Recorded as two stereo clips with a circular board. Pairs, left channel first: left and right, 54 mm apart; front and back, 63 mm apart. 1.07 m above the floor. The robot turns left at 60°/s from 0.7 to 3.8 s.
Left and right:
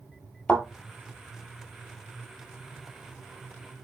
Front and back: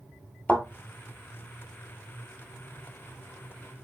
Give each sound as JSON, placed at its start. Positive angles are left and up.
{"t": 0.5, "sound": "a thud", "azimuth_deg": 30, "distance_m": 1.2}